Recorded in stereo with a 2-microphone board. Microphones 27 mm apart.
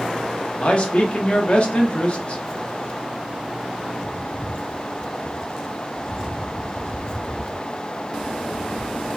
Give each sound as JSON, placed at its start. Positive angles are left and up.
{"t": 0.6, "sound": "a man speaking", "side_deg": 40, "distance_m": 0.9}